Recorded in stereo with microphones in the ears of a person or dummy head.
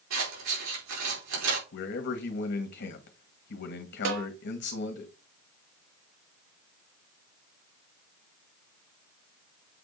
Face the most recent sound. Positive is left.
turn(degrees=-75)  # may be behind; listen again after turning